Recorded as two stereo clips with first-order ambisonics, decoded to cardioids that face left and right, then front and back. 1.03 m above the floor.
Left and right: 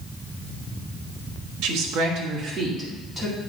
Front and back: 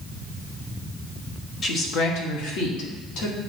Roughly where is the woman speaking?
Ahead right.